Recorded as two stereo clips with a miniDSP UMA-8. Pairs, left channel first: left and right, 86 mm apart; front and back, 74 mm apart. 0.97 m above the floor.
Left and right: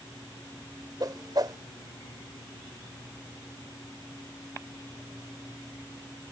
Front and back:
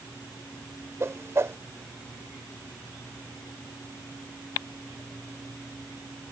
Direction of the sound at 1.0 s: 130° right.